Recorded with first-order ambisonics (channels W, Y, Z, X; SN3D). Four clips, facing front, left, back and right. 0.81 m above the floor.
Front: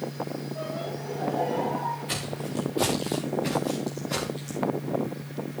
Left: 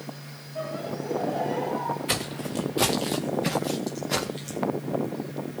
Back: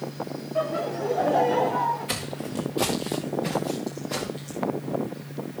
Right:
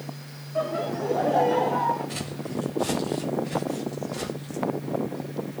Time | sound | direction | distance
0.6 | laughter | 140° right | 1.9 m
2.1 | footsteps | 105° left | 4 m